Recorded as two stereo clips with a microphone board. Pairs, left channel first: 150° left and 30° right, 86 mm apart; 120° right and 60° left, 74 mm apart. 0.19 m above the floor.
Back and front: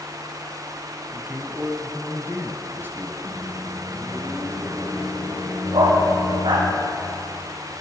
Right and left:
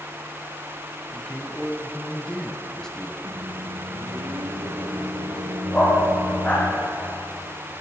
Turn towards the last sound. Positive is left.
turn(degrees=-50)